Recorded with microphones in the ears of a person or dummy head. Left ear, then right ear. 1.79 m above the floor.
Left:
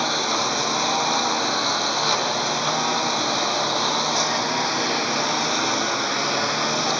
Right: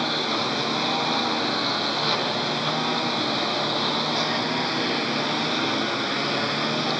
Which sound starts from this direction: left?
A lawn mower, at 0.0 s.